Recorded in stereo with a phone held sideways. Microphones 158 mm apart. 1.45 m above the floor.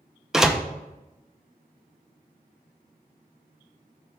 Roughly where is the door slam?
Centre.